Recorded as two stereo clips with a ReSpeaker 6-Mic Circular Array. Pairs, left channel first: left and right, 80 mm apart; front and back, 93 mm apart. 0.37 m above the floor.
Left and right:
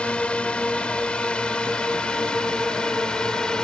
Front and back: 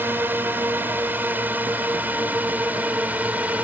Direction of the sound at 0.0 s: 145° left.